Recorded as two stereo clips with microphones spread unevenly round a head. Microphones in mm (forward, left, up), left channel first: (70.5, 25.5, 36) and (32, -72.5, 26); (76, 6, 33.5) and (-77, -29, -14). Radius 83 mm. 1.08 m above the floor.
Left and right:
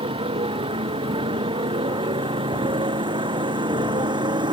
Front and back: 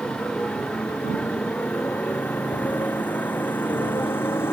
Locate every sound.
0.0 s a motorcycle: 70° right; by 4.5 s 65° right